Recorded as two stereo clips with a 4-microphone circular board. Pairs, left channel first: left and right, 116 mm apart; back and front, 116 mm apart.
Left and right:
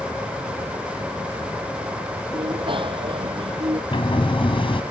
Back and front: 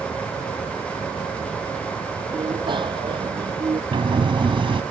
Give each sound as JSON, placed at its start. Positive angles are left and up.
{"t": 2.3, "sound": "a bicycle bell", "azimuth_deg": -45}
{"t": 3.9, "sound": "a sliding door", "azimuth_deg": 45}